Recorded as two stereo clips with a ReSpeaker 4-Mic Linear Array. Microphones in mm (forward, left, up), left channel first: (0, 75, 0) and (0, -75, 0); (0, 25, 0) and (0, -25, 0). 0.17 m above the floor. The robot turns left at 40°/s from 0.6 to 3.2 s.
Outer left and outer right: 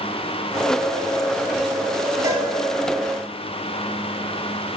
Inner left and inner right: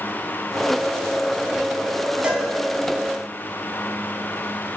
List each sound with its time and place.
2.2 s a cowbell: 20° right (ahead or behind), 0.6 m